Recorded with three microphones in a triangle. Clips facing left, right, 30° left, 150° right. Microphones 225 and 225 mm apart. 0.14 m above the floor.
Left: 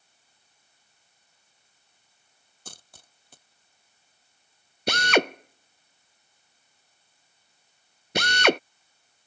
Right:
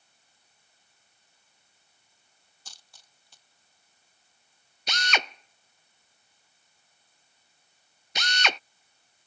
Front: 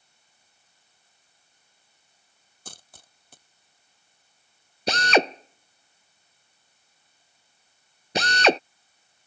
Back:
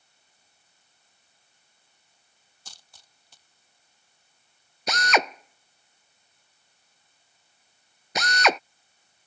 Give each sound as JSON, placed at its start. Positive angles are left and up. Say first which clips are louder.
{"t": 2.6, "sound": "a dropped coin", "louder": "left 11 dB, front 9 dB", "azimuth_deg": 60}
{"t": 4.9, "sound": "a drill", "louder": "left 12 dB, front 4 dB", "azimuth_deg": 85}